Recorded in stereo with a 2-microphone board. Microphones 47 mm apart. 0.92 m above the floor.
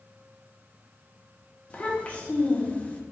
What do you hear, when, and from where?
1.7 s a child speaking: 25° left (ahead or behind), 0.8 m